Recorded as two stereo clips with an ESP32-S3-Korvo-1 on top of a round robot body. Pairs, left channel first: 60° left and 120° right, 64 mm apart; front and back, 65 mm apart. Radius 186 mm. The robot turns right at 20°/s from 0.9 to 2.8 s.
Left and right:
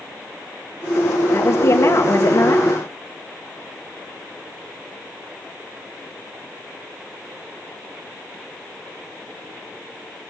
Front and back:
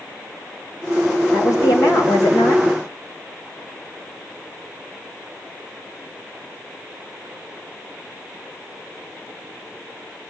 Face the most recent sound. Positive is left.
turn(degrees=50)